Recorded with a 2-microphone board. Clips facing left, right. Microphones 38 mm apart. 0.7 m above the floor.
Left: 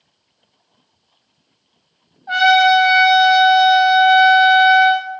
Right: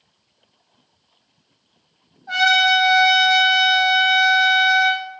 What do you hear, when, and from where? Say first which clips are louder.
2.3 s a trumpet: left 4 dB; 20° left (ahead or behind), 0.9 m